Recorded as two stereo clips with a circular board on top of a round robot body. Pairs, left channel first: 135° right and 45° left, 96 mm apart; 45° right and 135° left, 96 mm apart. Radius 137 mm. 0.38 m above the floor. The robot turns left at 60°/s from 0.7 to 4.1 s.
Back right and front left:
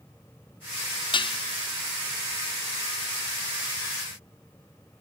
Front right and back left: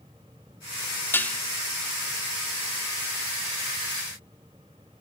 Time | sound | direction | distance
1.1 | dishes clattering | 110° right | 0.8 m